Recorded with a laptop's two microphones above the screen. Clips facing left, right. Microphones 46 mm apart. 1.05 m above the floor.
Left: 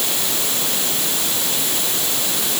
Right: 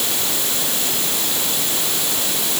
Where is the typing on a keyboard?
No typing on a keyboard in this recording.